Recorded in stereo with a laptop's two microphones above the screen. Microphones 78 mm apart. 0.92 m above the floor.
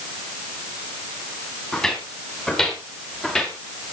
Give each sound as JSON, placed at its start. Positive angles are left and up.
{"t": 1.7, "sound": "footsteps", "side_deg": 10, "distance_m": 6.5}